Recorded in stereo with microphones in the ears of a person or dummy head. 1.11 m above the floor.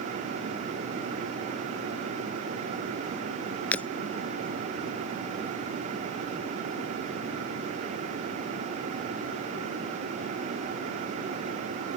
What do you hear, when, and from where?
3.7 s breaking glass: 10° left (ahead or behind)